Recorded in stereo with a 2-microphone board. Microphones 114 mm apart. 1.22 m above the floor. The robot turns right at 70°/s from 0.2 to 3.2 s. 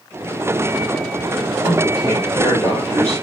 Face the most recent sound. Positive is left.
turn(degrees=120)